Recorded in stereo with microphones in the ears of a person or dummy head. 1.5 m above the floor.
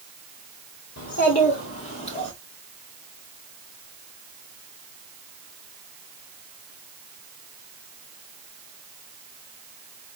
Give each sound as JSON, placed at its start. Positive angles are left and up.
{"t": 1.0, "sound": "a child speaking", "side_deg": 55, "distance_m": 1.9}